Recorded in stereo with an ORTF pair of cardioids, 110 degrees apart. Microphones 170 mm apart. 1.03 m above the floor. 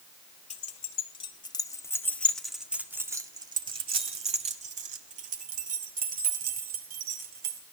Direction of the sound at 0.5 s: 45° left.